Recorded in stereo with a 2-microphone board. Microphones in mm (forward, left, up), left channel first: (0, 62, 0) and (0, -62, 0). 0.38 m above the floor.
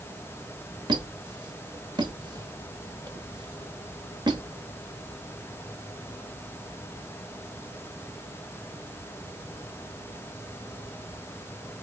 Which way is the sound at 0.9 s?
35° right (ahead or behind).